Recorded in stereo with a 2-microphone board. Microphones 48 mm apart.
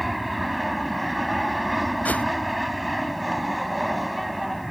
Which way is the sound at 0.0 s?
Centre (ahead or behind).